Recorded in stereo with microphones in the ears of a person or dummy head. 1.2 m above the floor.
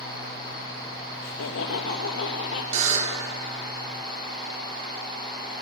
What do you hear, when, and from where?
1.2 s laughter: 85° left, 1.3 m
2.7 s a buzzer: 45° right (ahead or behind), 2 m